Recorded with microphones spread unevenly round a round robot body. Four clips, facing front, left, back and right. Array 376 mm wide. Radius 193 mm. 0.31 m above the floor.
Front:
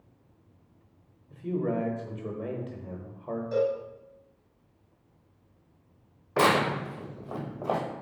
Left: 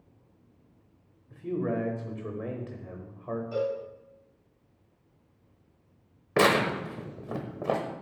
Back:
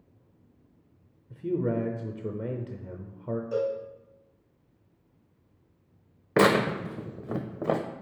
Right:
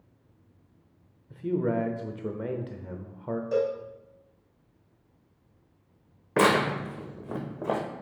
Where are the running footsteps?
I don't hear running footsteps.